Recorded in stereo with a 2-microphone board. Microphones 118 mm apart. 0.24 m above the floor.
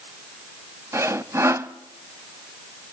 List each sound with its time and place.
0.9 s sawing: 25° right (ahead or behind), 0.7 m